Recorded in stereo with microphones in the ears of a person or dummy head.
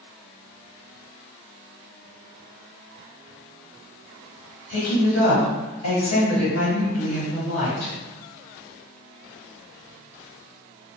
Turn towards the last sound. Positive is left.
turn(degrees=85)